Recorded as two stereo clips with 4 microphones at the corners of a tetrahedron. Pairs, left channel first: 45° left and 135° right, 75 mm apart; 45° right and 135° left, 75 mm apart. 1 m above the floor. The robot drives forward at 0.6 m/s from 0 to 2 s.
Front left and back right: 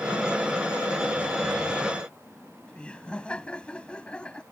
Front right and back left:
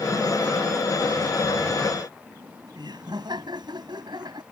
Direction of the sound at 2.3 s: 120° left.